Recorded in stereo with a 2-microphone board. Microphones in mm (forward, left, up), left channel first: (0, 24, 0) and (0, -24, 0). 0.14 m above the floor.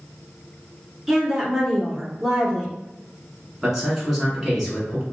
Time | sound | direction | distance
1.1 | a woman speaking | 10° right (ahead or behind) | 1.4 m
3.6 | a man speaking | 5° right (ahead or behind) | 1.2 m